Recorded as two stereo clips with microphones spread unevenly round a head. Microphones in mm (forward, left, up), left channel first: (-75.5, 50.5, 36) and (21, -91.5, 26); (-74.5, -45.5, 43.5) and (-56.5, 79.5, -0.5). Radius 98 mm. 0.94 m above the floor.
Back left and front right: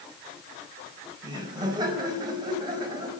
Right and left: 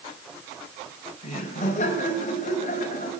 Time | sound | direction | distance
1.2 | laughter | 125° right | 5 m